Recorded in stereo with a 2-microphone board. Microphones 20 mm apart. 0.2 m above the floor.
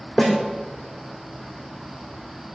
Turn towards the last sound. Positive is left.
turn(degrees=45)  # may be behind; listen again after turning